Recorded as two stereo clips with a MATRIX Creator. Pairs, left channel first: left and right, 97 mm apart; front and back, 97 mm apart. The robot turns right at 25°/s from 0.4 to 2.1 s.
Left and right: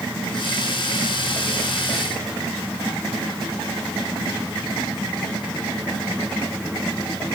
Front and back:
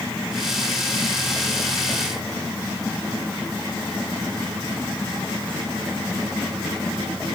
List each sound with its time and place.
Only background noise.